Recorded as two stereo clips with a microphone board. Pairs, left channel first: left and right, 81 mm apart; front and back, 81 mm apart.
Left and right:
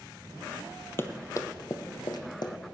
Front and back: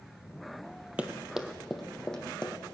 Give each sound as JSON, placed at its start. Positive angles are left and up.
{"t": 1.0, "sound": "running footsteps", "azimuth_deg": 120, "distance_m": 1.0}